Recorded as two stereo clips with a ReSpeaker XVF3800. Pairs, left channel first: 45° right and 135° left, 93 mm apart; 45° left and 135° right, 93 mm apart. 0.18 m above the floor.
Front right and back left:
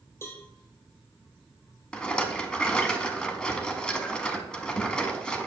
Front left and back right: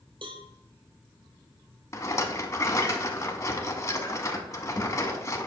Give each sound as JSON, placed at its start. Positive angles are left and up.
{"t": 0.2, "sound": "a cowbell", "azimuth_deg": -110, "distance_m": 1.4}
{"t": 1.9, "sound": "a rattle", "azimuth_deg": 25, "distance_m": 0.8}